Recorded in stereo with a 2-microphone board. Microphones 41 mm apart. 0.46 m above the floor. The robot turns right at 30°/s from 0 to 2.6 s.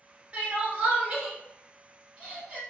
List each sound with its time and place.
0.3 s crying: 30° right (ahead or behind), 1.6 m